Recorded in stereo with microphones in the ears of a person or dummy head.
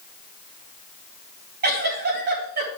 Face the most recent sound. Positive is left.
turn(degrees=-45)  # may be behind; listen again after turning